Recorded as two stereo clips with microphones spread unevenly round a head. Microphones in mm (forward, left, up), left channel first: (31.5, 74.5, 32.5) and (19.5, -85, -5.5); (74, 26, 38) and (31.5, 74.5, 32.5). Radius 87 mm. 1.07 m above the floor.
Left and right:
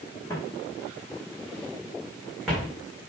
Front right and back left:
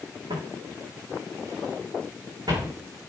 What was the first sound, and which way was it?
Footsteps, 160° left.